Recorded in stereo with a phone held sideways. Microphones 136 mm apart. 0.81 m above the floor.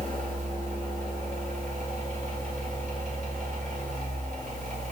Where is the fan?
60° right (ahead or behind), 4.5 m.